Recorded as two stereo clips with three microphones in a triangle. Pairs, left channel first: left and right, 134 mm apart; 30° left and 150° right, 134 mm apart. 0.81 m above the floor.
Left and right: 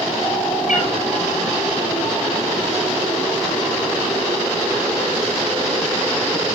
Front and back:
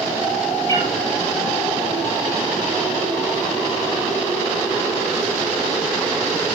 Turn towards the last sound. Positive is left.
turn(degrees=95)